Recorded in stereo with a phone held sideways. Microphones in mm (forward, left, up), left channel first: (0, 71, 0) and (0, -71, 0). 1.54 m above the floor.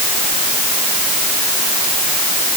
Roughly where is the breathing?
I don't hear breathing.